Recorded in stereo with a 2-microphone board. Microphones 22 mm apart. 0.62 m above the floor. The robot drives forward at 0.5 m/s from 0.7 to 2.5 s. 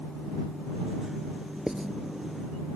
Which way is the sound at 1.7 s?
25° right (ahead or behind).